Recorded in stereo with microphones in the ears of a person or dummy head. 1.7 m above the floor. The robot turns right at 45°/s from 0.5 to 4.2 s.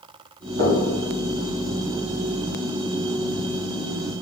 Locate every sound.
0.6 s knocking: 65° right (ahead or behind), 1.2 m